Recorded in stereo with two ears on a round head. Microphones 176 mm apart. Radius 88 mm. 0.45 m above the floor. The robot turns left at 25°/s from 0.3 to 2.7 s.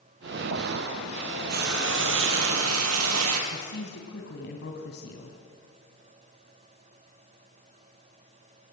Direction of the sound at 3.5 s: 60° left (ahead or behind).